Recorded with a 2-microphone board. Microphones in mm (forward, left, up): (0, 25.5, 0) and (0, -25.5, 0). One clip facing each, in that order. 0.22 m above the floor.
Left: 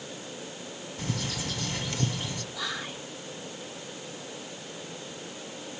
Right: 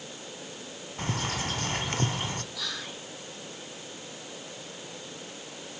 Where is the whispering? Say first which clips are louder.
Left 3 dB; 20° left (ahead or behind), 1.6 m.